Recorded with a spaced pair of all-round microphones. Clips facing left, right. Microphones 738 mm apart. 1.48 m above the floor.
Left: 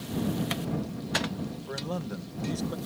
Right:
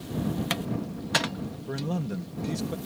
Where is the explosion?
No explosion in this recording.